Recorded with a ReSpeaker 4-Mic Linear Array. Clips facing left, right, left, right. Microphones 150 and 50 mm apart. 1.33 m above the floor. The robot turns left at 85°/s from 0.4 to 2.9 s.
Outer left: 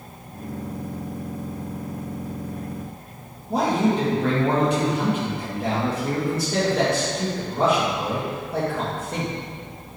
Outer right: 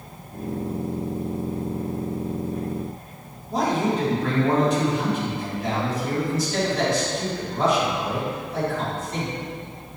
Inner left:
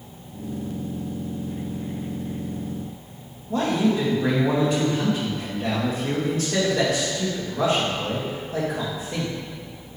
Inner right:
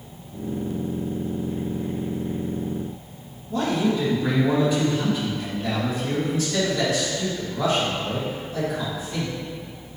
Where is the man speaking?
60° left (ahead or behind), 2 m.